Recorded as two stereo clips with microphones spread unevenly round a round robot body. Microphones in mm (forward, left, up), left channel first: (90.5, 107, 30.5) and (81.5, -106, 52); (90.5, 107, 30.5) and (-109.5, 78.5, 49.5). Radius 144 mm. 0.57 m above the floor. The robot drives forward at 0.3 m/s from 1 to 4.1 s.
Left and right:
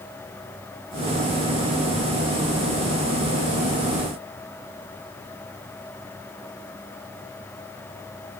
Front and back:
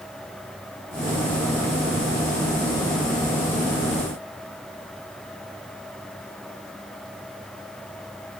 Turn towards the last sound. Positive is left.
No sound to turn to.